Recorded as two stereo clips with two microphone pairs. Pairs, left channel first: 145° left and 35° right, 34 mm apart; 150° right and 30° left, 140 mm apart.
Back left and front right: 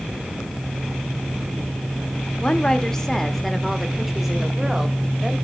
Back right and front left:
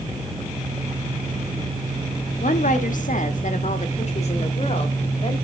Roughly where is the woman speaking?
Behind right.